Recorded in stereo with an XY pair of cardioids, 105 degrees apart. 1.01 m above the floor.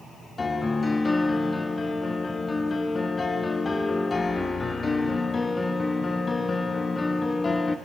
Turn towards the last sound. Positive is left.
turn(degrees=30)